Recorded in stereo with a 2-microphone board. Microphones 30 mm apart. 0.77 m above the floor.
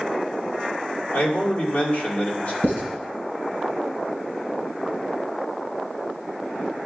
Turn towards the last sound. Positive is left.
turn(degrees=80)